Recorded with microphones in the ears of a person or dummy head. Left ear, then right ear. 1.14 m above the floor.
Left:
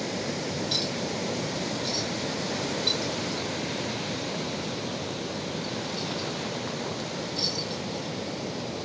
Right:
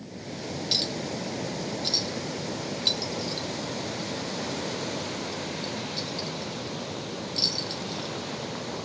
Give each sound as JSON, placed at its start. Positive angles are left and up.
{"t": 0.7, "sound": "a clink", "side_deg": -25, "distance_m": 0.5}